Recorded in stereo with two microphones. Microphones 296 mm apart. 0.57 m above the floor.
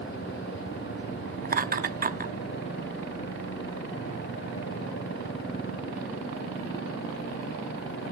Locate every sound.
1.4 s laughter: 30° right (ahead or behind), 0.7 m